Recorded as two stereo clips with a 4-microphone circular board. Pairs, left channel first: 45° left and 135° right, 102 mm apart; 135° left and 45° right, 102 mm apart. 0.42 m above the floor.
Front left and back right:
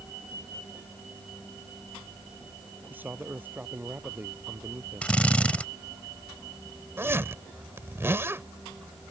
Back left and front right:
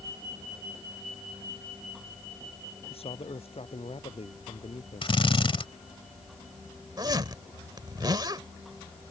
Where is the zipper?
80° right.